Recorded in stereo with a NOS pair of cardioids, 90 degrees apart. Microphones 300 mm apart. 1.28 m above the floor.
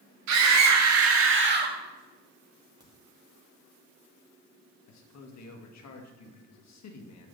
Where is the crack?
15° right, 2.5 m.